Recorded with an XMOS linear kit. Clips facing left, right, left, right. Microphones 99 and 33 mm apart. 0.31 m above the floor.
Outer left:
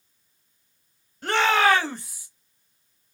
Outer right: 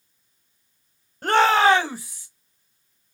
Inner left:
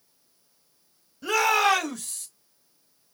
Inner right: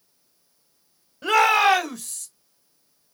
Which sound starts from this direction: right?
A shout, at 1.2 s.